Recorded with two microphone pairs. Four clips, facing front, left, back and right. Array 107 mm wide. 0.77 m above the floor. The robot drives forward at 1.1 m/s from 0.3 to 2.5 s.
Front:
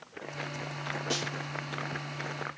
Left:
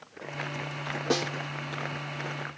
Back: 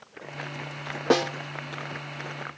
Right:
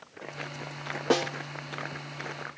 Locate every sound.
1.1 s a snare drum: 165° right